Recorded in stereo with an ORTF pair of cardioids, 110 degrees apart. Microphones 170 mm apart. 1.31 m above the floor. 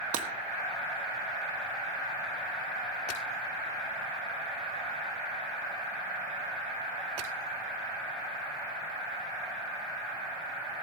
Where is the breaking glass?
55° right, 1.6 m.